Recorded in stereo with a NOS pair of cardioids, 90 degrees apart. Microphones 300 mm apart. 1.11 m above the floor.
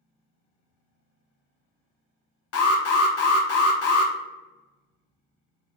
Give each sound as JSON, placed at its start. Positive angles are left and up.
{"t": 2.5, "sound": "an alarm", "azimuth_deg": 50, "distance_m": 0.7}